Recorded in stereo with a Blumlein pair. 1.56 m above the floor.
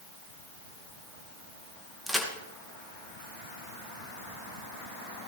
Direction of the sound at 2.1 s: 5° right.